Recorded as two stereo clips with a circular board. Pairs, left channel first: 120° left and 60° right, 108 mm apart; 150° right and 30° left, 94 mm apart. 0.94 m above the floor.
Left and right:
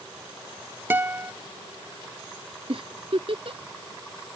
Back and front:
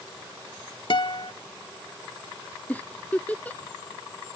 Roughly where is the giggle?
Right.